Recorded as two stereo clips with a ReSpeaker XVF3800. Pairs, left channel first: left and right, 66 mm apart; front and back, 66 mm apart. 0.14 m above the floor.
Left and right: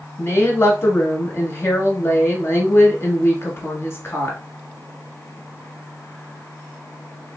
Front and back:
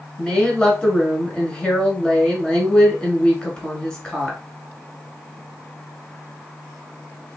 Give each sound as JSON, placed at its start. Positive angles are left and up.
{"t": 0.2, "sound": "a woman speaking", "azimuth_deg": 70, "distance_m": 1.4}